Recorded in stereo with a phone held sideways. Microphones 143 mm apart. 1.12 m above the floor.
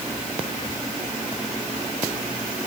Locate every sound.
Only background noise.